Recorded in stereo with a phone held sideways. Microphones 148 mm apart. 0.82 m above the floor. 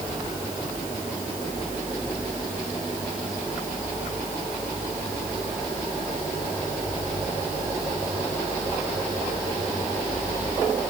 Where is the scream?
I don't hear a scream.